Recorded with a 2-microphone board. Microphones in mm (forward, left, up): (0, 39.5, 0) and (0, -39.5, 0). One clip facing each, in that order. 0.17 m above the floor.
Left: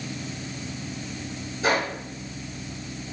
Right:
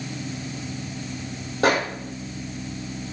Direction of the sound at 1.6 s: 75° right (ahead or behind).